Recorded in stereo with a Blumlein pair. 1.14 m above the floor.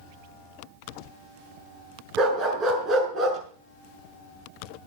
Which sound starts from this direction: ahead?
A dog barking, at 2.2 s.